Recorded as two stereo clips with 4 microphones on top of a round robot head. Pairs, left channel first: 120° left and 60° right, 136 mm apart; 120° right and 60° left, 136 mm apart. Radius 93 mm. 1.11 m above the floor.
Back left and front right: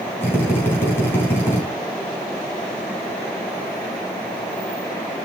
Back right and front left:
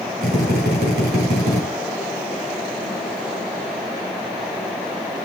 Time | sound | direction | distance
0.2 | a drill | 45° left | 4 m